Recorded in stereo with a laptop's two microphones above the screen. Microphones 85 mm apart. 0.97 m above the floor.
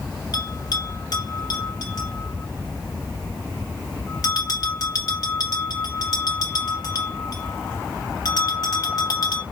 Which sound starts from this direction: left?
A bell, at 0.3 s.